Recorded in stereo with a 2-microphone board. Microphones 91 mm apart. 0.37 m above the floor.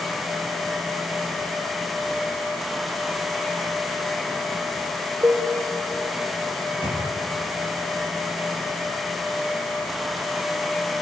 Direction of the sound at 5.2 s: 30° right (ahead or behind).